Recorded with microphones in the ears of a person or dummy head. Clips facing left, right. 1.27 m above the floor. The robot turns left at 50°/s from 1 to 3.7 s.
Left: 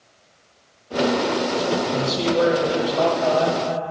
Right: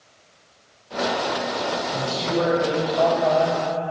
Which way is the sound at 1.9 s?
125° left.